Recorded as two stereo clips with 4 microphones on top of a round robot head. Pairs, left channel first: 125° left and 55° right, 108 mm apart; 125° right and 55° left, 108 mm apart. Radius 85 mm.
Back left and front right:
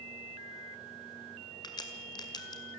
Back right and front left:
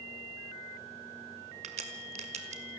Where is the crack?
70° left, 1.8 m.